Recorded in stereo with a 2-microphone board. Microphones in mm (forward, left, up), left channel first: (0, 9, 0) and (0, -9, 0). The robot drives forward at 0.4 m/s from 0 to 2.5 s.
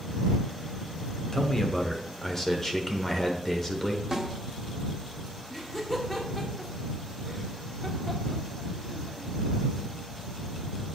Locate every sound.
1.3 s a man speaking: 35° left (ahead or behind), 1.0 m; by 4.0 s 25° left (ahead or behind), 1.2 m
4.1 s a snare drum: 15° right (ahead or behind), 1.4 m
5.5 s laughter: 25° left (ahead or behind), 1.4 m